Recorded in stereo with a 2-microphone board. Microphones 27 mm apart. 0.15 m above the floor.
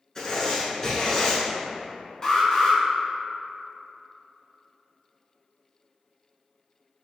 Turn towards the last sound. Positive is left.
turn(degrees=20)  # may be behind; listen again after turning